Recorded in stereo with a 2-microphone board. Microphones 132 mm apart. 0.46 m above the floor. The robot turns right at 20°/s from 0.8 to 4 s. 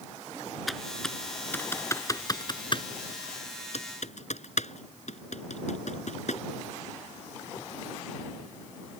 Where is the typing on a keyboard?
Centre (ahead or behind); by 6.4 s 65° left (ahead or behind).